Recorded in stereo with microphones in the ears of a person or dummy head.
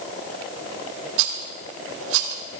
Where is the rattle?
70° right (ahead or behind), 1.6 m.